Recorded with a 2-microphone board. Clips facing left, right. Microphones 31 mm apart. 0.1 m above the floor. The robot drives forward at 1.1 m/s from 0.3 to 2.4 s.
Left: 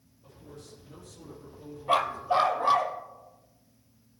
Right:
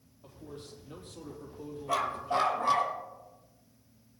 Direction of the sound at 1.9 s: 45° left (ahead or behind).